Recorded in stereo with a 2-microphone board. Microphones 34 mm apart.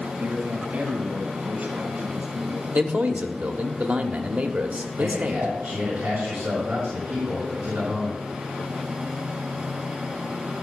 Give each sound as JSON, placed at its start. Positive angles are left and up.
{"t": 0.2, "sound": "a man speaking", "side_deg": -50, "distance_m": 5.0}
{"t": 2.7, "sound": "a man speaking", "side_deg": -45, "distance_m": 1.0}
{"t": 5.0, "sound": "a man speaking", "side_deg": -80, "distance_m": 6.5}